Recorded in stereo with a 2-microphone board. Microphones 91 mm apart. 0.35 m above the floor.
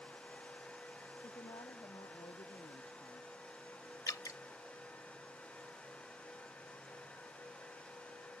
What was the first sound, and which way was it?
A woman speaking, 75° left (ahead or behind).